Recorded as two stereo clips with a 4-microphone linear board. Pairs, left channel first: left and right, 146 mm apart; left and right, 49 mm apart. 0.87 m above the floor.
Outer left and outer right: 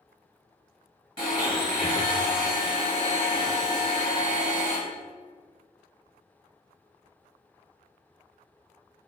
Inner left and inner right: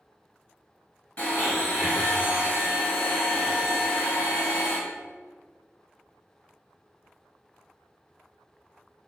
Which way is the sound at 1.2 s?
30° left (ahead or behind).